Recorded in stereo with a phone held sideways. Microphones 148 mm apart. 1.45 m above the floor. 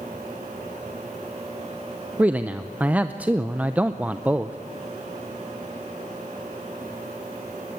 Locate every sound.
2.2 s a man speaking: 10° right (ahead or behind), 0.6 m